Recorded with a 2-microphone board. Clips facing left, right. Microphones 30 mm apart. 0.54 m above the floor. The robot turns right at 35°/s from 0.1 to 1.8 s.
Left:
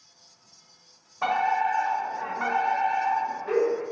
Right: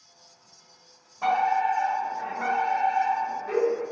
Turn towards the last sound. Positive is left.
turn(degrees=25)  # may be behind; listen again after turning